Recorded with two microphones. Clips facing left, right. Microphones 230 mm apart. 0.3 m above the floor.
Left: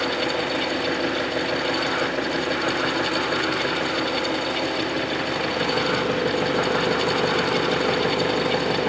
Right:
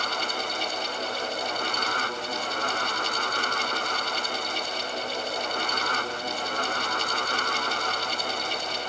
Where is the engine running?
85° left.